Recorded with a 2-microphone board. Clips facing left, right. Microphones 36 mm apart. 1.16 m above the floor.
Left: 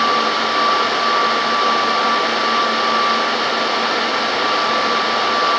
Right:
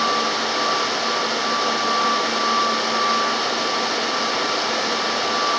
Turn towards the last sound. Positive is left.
No sound to turn to.